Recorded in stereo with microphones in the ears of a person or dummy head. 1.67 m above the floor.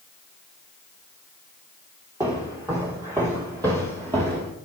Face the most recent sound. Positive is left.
turn(degrees=-25)  # may be behind; listen again after turning